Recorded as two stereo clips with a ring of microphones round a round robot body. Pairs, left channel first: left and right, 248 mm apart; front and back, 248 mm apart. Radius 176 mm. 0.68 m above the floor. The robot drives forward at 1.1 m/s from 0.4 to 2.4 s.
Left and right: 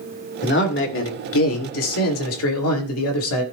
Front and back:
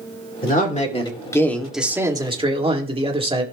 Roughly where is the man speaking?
Ahead left.